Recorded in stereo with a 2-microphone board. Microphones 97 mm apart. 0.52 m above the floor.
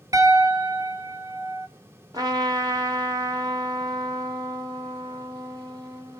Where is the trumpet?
40° right (ahead or behind), 1.4 m.